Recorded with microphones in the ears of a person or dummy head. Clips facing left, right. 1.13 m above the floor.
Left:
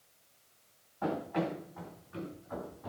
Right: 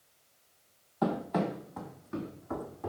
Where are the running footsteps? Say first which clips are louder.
Right 3 dB; 60° right (ahead or behind), 2.5 m; by 2.9 s 65° right (ahead or behind), 3.5 m.